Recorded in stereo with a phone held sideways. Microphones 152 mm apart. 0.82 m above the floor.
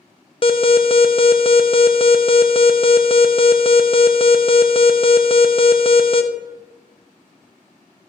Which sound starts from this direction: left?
An alarm, at 0.4 s.